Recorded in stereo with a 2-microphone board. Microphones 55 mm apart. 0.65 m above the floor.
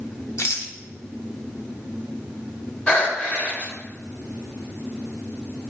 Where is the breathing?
30° left (ahead or behind), 1.6 m.